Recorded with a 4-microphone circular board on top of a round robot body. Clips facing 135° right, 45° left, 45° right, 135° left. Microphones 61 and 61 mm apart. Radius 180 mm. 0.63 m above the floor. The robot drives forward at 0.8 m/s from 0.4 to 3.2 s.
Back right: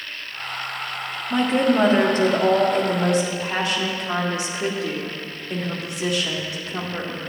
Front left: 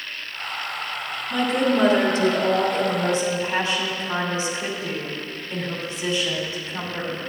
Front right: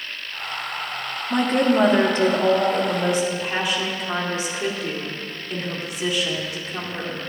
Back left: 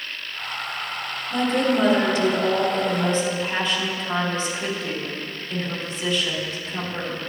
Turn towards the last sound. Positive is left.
turn(degrees=-125)